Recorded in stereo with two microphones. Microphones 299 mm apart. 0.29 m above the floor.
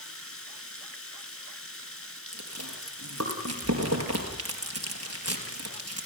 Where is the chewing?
60° right (ahead or behind), 4.5 m.